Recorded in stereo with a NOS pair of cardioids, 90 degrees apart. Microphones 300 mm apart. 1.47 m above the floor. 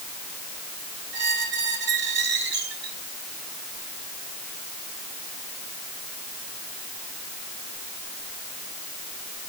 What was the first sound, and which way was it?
A squeak, 40° right.